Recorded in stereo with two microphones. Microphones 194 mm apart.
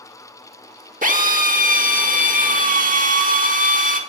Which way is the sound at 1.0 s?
45° right (ahead or behind).